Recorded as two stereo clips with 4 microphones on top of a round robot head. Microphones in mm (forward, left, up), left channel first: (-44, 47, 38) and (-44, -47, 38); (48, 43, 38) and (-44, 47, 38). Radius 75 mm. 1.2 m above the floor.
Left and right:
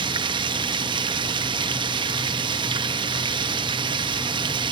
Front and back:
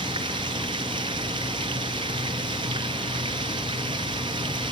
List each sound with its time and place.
0.0 s running water: 125° right, 0.8 m